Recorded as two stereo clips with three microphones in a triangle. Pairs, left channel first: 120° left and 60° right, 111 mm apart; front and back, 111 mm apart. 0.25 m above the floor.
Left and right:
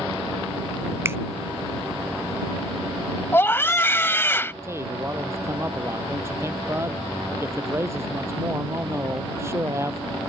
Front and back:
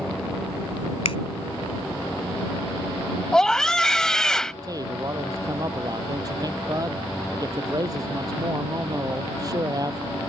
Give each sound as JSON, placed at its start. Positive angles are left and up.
{"t": 1.1, "sound": "a finger snap", "azimuth_deg": 5}
{"t": 3.3, "sound": "a scream", "azimuth_deg": 80}
{"t": 4.6, "sound": "a man speaking", "azimuth_deg": -125}